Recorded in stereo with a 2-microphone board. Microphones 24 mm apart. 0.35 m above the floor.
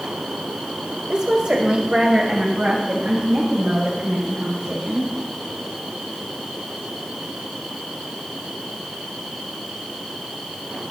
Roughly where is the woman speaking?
Right.